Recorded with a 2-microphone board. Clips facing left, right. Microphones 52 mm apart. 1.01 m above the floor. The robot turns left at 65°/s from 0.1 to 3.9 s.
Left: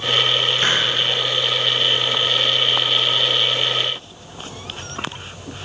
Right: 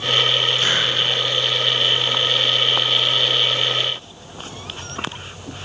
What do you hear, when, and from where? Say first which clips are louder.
0.6 s a hiss: left 1 dB; 40° left (ahead or behind), 1.1 m; by 0.9 s 20° left (ahead or behind), 1.1 m